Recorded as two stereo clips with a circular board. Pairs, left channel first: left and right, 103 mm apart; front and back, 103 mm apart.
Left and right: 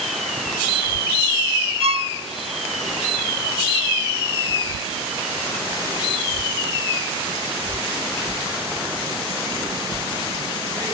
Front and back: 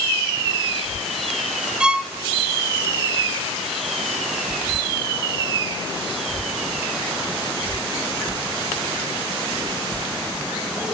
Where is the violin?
100° right, 0.8 m.